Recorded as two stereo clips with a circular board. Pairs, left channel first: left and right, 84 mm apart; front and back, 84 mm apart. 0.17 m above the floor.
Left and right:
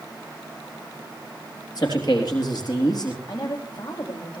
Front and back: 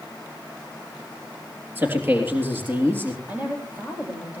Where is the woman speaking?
115° left, 7.5 m.